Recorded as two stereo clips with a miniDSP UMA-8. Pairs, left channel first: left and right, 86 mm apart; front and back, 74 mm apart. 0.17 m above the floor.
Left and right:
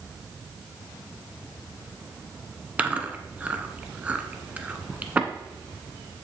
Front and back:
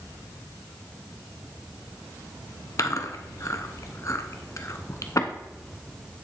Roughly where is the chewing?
Ahead right.